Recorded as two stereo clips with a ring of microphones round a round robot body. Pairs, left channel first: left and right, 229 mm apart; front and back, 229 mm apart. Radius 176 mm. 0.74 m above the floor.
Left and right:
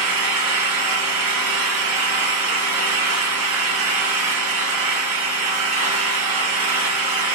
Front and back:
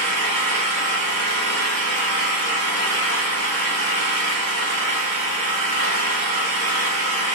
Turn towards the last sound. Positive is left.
turn(degrees=-130)